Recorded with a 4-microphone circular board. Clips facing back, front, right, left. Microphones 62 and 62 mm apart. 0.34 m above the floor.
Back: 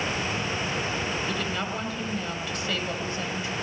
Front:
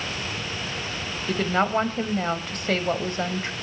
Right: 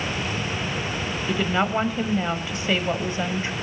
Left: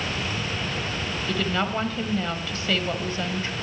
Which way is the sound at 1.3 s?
25° right.